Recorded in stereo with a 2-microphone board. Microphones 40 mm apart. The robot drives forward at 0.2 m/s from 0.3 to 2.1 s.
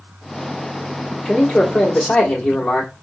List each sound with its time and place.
1.2 s a man speaking: 20° left (ahead or behind), 1.4 m